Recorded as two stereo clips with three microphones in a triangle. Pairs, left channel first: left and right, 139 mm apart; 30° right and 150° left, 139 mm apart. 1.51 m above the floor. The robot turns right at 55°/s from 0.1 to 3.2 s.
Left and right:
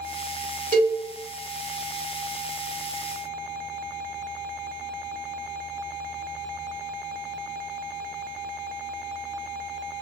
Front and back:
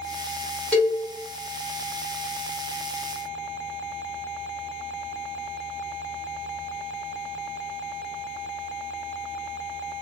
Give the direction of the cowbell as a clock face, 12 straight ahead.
4 o'clock.